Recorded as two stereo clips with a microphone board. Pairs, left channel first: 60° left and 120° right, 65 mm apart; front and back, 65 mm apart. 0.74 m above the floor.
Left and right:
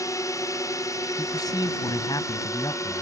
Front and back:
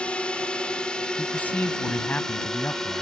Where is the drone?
70° left; by 3.0 s 85° left.